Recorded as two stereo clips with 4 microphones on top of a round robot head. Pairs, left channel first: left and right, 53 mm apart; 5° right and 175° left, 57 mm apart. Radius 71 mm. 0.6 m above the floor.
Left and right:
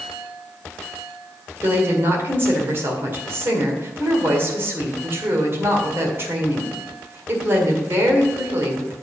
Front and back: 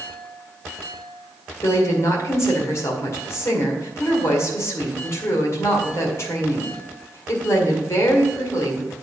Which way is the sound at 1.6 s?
40° right.